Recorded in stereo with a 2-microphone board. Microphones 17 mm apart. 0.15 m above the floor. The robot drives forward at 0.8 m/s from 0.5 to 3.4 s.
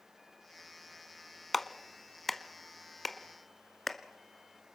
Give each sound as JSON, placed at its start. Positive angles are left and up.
{"t": 1.5, "sound": "a clap", "side_deg": 5, "distance_m": 1.0}